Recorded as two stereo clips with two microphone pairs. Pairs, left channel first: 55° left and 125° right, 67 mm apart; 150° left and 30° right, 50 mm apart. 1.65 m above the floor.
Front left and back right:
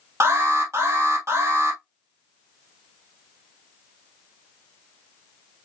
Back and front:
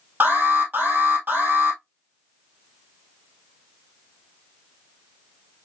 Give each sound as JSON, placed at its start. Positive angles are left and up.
{"t": 0.2, "sound": "an alarm", "azimuth_deg": -80, "distance_m": 3.0}